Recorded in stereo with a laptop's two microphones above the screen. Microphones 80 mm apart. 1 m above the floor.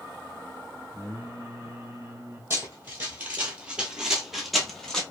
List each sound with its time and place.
0.9 s singing: 40° right (ahead or behind), 0.7 m
2.5 s running footsteps: 30° right (ahead or behind), 1.2 m; by 5.0 s 5° left (ahead or behind), 1.2 m